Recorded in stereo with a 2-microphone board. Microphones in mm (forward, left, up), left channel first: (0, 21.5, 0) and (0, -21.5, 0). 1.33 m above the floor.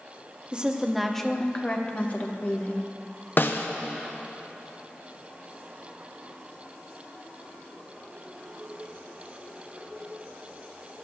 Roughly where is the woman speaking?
Right.